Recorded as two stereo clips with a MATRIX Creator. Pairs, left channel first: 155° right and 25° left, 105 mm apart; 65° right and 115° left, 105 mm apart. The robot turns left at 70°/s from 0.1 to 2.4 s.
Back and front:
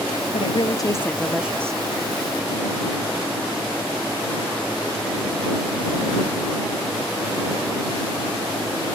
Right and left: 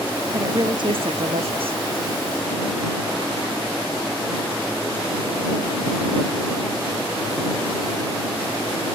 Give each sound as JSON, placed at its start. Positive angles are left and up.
{"t": 0.3, "sound": "a woman speaking", "azimuth_deg": 180}